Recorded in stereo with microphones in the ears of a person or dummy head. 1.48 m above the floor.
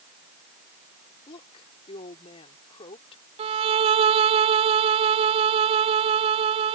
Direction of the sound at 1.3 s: 30° left (ahead or behind).